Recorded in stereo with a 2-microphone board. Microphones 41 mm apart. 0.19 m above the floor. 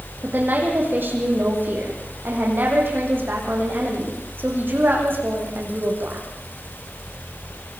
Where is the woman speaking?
55° right (ahead or behind), 9 m.